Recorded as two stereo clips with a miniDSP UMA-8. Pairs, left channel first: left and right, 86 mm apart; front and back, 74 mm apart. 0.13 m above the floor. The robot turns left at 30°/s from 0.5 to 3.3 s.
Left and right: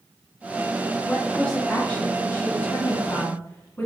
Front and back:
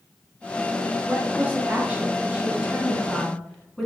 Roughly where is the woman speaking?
Behind.